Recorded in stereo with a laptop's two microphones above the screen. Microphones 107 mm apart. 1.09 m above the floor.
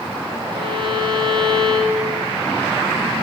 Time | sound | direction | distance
0.5 | a violin | 50° right (ahead or behind) | 8 m